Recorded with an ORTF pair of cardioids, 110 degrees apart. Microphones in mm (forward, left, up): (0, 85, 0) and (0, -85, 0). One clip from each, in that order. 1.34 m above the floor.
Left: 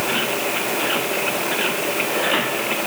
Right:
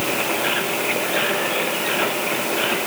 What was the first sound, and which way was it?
Only background noise.